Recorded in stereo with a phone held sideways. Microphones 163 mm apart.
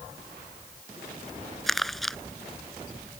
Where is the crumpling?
Centre (ahead or behind).